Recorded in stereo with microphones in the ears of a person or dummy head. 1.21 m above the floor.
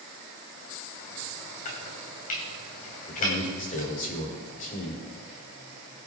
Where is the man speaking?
45° left (ahead or behind), 4.5 m.